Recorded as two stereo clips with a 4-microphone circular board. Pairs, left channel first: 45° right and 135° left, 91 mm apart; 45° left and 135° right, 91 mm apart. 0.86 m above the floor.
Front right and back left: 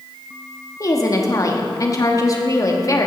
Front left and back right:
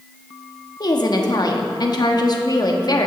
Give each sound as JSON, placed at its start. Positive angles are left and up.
{"t": 0.8, "sound": "a woman speaking", "azimuth_deg": 5, "distance_m": 1.1}